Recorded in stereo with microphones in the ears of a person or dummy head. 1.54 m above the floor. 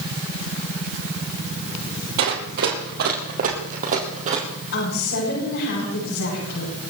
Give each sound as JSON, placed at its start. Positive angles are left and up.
{"t": 2.2, "sound": "running footsteps", "side_deg": -60, "distance_m": 3.5}
{"t": 4.7, "sound": "a woman speaking", "side_deg": 80, "distance_m": 9.5}